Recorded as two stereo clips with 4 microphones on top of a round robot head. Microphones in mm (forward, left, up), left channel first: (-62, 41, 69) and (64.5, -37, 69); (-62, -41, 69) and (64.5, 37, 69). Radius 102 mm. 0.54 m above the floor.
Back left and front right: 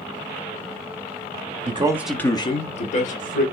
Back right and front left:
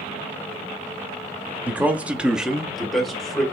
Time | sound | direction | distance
1.7 | a man speaking | 45° right | 0.9 m